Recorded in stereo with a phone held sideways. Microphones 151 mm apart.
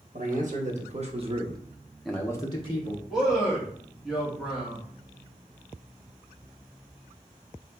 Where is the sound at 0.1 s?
60° right (ahead or behind), 1.4 m; by 3.0 s 50° left (ahead or behind), 0.9 m.